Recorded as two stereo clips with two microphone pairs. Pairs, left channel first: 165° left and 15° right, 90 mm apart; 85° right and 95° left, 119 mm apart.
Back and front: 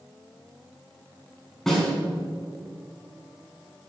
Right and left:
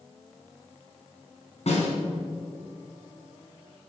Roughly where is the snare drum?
Right.